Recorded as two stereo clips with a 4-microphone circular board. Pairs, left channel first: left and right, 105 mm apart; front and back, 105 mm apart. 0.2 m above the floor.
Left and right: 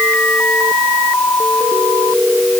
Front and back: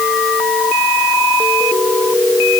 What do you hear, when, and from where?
Only background noise.